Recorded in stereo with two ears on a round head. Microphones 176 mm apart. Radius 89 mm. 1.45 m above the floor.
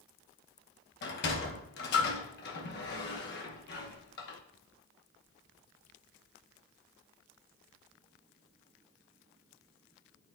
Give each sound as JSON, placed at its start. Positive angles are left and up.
{"t": 1.0, "sound": "a sliding door", "side_deg": 55, "distance_m": 0.9}